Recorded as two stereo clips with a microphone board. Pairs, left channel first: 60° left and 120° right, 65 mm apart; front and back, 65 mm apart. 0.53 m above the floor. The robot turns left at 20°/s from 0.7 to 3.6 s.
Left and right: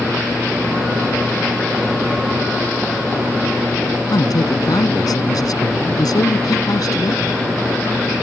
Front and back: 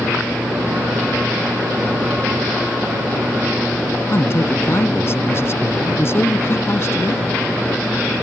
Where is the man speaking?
50° left.